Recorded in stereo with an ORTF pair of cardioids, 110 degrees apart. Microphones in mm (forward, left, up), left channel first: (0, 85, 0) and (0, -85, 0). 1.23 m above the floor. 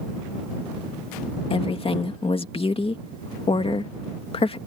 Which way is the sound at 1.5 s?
35° left.